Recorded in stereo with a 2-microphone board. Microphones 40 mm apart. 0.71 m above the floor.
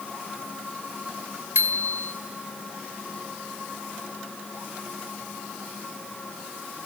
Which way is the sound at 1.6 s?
70° right (ahead or behind).